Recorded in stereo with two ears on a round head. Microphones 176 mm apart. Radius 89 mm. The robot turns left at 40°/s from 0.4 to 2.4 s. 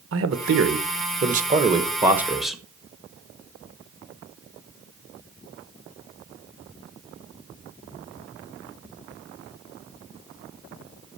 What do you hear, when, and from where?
0.1 s a man speaking: 100° right, 1.3 m; by 2.6 s straight behind, 1.3 m